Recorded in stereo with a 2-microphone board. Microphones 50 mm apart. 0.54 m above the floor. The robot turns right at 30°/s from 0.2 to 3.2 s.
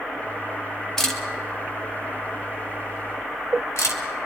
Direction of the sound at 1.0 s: 10° left (ahead or behind).